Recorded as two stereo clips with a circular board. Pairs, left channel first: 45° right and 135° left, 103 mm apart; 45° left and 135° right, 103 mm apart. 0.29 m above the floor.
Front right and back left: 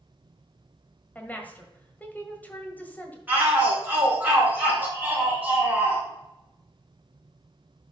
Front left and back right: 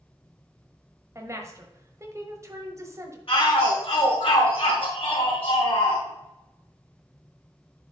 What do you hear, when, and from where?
1.1 s a woman speaking: 105° right, 1.4 m
3.3 s a shout: 60° left, 3 m